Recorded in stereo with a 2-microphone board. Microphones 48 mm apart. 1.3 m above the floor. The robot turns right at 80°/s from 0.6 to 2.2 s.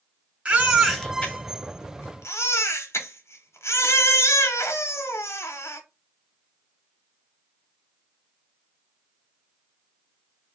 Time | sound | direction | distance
0.5 | a baby crying | 30° right | 0.6 m